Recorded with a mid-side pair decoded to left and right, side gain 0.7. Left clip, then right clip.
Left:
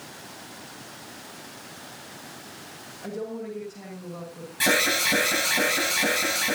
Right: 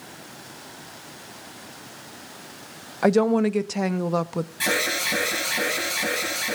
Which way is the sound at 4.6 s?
15° left.